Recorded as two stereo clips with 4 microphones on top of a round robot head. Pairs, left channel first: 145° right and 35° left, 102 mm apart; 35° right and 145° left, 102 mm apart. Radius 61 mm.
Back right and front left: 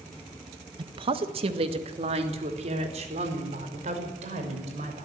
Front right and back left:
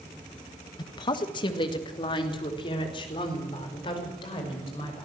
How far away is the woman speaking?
About 1.2 m.